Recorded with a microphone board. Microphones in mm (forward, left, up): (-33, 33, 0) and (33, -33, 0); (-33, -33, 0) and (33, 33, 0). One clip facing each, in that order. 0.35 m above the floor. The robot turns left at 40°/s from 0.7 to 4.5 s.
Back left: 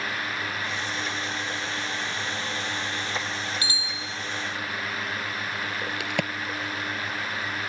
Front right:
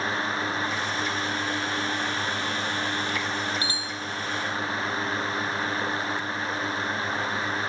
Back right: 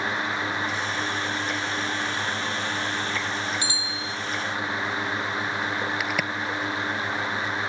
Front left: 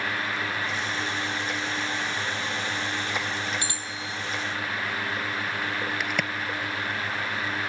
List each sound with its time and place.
3.6 s a bicycle bell: 15° left; by 4.2 s 10° right
6.0 s a crack: 140° left